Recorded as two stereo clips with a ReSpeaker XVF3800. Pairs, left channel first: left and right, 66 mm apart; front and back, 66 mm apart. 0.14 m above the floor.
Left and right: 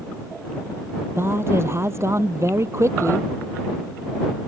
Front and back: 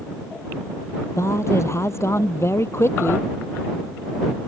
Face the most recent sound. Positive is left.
turn(degrees=-50)